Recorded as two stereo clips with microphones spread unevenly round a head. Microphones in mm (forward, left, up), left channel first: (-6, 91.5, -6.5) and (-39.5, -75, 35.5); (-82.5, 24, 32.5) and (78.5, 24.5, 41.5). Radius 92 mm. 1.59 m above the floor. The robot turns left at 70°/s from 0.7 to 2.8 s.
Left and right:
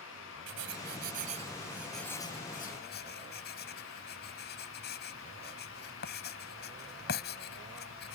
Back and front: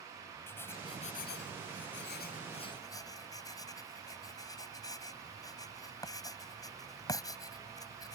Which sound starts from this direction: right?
Writing, at 0.5 s.